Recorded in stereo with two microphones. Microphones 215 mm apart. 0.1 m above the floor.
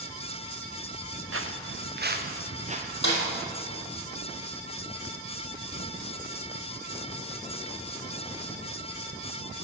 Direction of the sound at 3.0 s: 55° left (ahead or behind).